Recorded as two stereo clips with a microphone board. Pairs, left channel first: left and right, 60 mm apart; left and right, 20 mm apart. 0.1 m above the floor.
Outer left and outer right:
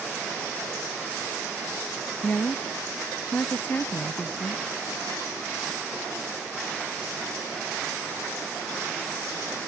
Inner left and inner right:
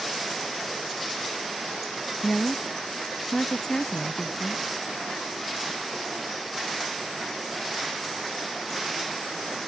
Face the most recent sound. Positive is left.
turn(degrees=35)  # may be behind; listen again after turning